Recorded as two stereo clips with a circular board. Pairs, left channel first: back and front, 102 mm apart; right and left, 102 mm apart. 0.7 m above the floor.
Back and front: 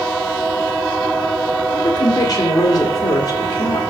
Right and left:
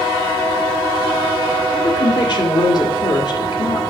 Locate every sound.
1.7 s a woman speaking: 130° right, 1.8 m